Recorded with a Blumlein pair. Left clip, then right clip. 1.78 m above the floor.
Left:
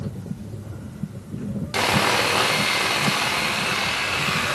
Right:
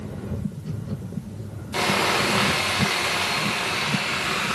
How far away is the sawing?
About 0.6 m.